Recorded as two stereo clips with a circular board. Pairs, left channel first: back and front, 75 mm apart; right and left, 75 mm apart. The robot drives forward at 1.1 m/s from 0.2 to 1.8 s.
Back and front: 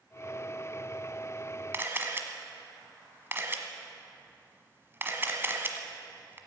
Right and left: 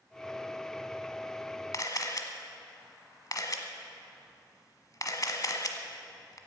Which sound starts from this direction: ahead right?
A camera shutter, at 1.7 s.